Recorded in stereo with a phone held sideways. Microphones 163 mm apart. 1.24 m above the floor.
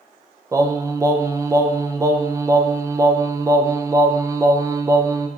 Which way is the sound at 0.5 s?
20° right (ahead or behind).